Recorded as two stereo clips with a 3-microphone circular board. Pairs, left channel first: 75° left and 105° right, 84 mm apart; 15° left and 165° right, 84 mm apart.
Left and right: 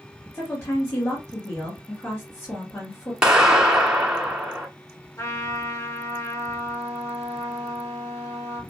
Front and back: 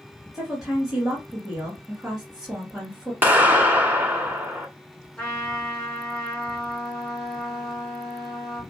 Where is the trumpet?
80° left, 1.8 m.